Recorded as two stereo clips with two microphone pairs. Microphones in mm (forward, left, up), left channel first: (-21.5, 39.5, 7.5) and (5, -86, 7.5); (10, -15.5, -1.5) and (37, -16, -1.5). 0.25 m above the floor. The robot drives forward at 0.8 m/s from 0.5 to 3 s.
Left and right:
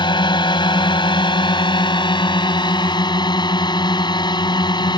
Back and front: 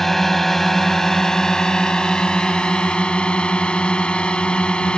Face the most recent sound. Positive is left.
turn(degrees=145)